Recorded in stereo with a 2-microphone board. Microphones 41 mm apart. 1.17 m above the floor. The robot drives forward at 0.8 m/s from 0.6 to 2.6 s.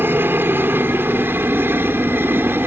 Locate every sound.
0.0 s a helicopter: 65° right (ahead or behind)